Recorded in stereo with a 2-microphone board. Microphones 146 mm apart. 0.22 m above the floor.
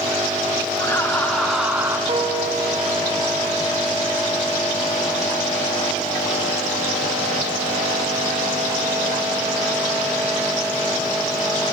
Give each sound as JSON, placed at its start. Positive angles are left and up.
{"t": 0.8, "sound": "laughter", "side_deg": 20, "distance_m": 2.5}
{"t": 2.1, "sound": "a piano", "side_deg": -50, "distance_m": 1.3}